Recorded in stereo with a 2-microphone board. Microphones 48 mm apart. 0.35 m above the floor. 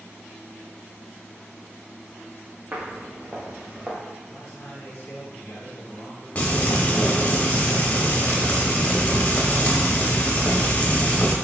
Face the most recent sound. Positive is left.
turn(degrees=35)  # may be behind; listen again after turning